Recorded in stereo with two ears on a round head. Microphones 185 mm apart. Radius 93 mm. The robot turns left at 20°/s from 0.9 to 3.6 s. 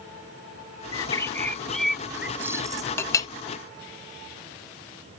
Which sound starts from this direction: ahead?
A bird, at 0.9 s.